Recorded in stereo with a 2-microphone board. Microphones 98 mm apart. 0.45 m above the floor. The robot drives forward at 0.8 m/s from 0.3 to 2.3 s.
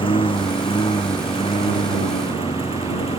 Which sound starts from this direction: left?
A lawn mower, at 0.0 s.